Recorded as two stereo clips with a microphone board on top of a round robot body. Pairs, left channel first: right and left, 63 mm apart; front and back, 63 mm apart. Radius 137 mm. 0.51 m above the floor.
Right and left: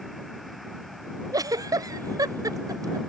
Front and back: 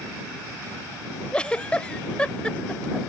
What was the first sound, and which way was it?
A giggle, 75° left.